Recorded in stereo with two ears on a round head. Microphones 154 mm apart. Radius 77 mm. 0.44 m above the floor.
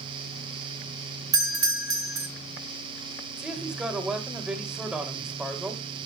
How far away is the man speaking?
About 2 m.